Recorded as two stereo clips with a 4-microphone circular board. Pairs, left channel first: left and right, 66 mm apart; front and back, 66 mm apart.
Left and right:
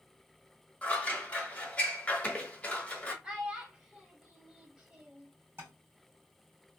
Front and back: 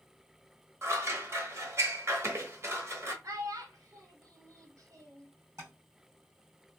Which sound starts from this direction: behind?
A child speaking, at 3.2 s.